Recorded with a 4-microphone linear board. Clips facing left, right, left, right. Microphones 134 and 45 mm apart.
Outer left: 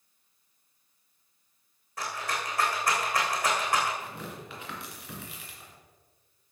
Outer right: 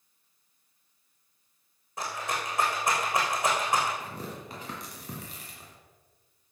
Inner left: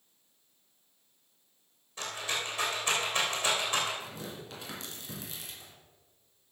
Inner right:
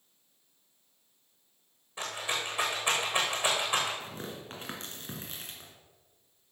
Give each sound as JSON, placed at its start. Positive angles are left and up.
{"t": 2.0, "sound": "a rattle", "side_deg": -20, "distance_m": 3.5}
{"t": 4.0, "sound": "tearing paper", "side_deg": -40, "distance_m": 2.5}